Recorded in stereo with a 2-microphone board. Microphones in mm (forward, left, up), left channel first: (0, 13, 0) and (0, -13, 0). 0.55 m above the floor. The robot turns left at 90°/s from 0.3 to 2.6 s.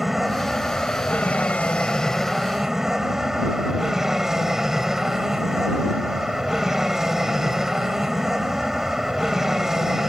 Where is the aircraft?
165° right; by 10.1 s 15° right.